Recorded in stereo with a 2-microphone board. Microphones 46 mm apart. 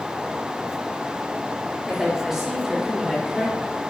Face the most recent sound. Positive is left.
turn(degrees=-20)  # may be behind; listen again after turning